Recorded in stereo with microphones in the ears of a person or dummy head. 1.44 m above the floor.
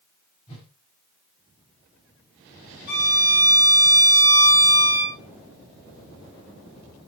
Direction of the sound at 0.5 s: 40° left (ahead or behind).